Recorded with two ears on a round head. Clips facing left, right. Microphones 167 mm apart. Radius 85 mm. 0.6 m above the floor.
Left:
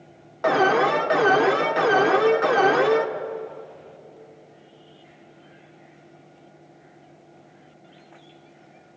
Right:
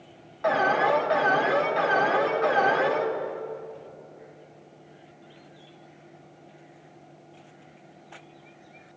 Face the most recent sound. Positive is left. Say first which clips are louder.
# left 4 dB
turn(degrees=60)  # may be behind; listen again after turning